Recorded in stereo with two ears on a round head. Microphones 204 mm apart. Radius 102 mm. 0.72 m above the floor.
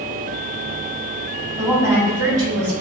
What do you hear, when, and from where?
1.6 s a woman speaking: 5° right (ahead or behind), 1.7 m